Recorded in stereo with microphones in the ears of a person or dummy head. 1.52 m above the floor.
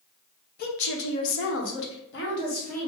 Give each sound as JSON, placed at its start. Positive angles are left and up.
{"t": 0.6, "sound": "a woman speaking", "side_deg": 45, "distance_m": 0.9}